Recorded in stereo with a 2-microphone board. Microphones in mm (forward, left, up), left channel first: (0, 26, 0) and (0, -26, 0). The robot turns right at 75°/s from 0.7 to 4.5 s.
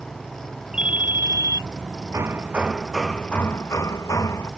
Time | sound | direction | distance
0.7 | a ringtone | 165° right | ?
2.1 | hammering | 60° right | ?